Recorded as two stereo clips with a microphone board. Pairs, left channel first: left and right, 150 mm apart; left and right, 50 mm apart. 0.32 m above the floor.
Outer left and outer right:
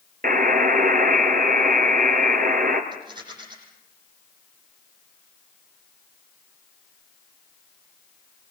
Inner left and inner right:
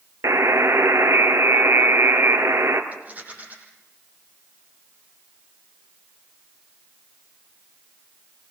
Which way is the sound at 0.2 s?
70° right (ahead or behind).